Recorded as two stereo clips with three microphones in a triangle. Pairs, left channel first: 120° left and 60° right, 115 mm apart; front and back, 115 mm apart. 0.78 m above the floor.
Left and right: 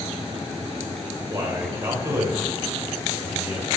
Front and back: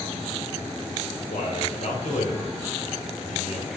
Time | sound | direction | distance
1.3 | a man speaking | 5° left | 2.5 m